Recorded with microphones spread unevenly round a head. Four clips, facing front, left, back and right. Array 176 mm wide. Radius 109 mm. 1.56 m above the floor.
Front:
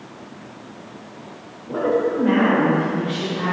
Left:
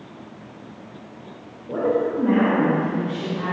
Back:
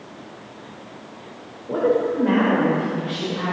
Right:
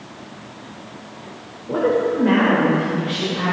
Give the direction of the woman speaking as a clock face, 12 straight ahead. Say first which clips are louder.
Right 3 dB, even; 4 o'clock.